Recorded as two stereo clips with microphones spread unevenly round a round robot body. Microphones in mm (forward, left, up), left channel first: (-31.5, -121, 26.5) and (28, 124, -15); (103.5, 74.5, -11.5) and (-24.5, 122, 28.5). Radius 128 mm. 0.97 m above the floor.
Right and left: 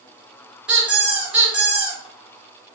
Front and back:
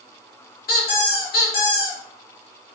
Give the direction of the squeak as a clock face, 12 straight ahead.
12 o'clock.